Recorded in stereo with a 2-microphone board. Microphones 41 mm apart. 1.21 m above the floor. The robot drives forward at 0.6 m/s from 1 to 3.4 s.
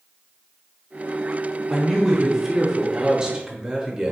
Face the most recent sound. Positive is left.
turn(degrees=-20)  # may be behind; listen again after turning